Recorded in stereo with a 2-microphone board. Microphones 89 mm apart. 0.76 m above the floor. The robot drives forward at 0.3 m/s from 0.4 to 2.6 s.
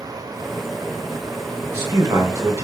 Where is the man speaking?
30° right (ahead or behind), 0.7 m; by 2.6 s 35° right (ahead or behind), 0.6 m.